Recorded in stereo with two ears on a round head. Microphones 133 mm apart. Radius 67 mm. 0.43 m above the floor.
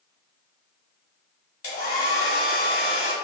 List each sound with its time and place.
1.6 s a hair dryer: 60° left (ahead or behind), 1.5 m